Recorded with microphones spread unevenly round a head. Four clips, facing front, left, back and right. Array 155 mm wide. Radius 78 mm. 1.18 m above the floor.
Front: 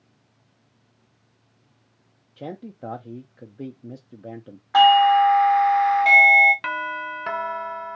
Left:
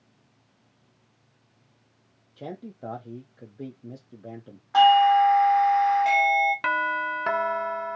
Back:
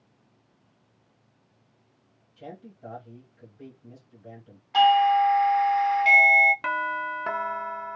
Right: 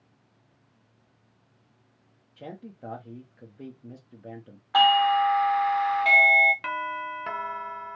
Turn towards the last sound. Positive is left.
turn(degrees=105)